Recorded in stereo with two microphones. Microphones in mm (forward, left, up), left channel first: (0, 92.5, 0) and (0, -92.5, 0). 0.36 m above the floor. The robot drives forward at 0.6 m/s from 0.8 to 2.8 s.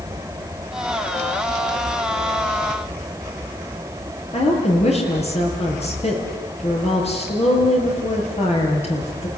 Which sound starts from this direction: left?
A woman speaking, at 4.3 s.